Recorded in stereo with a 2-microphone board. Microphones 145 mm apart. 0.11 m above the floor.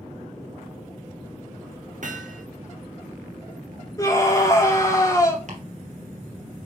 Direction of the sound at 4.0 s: 25° left (ahead or behind).